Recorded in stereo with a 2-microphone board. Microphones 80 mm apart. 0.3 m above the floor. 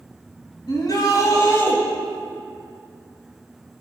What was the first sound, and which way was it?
A shout, 55° left (ahead or behind).